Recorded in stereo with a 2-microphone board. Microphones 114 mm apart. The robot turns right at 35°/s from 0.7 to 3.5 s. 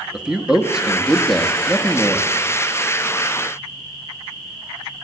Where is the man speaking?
15° right, 0.8 m; by 2.3 s 40° left, 0.8 m.